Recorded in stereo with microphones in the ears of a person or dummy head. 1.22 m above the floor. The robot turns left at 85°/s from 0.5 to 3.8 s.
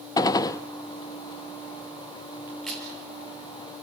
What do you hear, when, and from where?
0.2 s a gunshot: 20° left (ahead or behind), 0.8 m; by 0.6 s 10° left (ahead or behind), 0.8 m
2.5 s a crack: 10° right (ahead or behind), 6 m; by 2.9 s 20° left (ahead or behind), 6 m